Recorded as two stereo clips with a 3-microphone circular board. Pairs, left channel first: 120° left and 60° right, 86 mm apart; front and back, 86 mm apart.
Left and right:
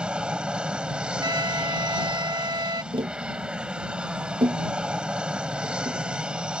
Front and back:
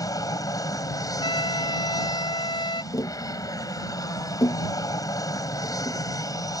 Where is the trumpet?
20° right.